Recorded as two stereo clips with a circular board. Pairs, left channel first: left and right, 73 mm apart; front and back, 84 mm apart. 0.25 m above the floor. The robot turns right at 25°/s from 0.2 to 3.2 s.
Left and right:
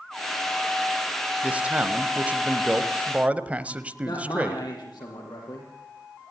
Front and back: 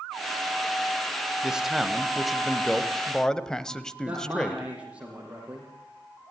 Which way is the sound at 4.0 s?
105° left.